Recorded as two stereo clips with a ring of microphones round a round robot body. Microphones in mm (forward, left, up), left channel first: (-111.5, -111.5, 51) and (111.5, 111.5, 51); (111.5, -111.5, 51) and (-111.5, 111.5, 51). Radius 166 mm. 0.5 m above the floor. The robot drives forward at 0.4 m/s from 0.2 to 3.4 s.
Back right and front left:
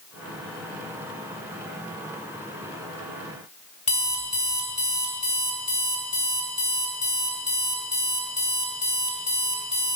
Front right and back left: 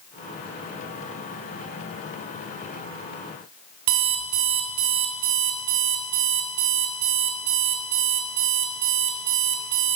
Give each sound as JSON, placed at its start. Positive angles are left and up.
{"t": 3.9, "sound": "an alarm clock", "azimuth_deg": 155, "distance_m": 1.8}